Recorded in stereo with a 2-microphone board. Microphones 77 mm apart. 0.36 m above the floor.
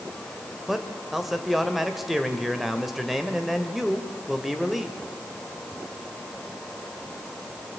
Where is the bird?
I don't hear a bird.